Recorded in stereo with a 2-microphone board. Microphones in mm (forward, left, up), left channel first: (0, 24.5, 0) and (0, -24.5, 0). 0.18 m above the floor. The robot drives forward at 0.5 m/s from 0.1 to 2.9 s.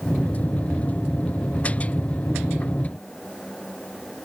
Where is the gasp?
No gasp in this recording.